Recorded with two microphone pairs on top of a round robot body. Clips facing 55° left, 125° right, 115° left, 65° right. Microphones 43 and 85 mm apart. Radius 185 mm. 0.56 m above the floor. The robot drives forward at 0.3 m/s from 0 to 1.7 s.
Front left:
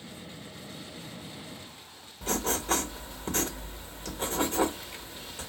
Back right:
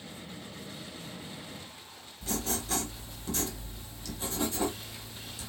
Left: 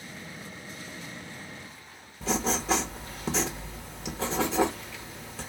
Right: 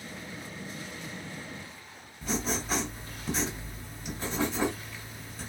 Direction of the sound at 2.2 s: 105° left.